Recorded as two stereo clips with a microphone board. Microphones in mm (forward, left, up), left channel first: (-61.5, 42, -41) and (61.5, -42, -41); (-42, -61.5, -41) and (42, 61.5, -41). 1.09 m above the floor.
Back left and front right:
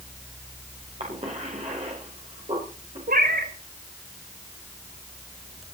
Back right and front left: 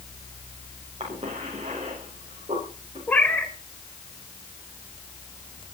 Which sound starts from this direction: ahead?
A cough, at 1.0 s.